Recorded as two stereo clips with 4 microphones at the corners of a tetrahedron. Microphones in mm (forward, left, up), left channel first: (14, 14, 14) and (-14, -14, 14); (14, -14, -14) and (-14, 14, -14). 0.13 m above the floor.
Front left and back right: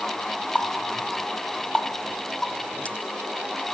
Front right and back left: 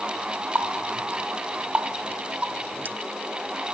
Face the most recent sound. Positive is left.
turn(degrees=95)